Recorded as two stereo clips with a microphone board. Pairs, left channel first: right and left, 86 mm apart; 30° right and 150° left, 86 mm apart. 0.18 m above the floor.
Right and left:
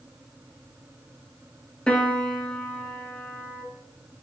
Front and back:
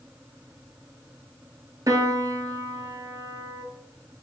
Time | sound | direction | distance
1.9 | a piano | 170° right | 0.5 m